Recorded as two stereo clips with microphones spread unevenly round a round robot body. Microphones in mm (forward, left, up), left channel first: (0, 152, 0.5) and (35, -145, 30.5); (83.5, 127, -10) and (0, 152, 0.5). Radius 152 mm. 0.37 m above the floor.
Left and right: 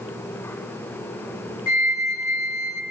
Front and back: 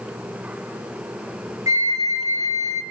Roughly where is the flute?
Left.